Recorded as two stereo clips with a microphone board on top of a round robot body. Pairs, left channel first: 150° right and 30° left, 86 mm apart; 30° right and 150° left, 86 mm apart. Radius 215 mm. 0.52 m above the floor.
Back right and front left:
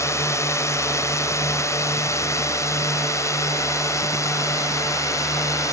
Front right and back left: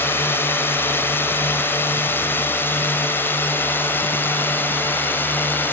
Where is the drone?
95° right.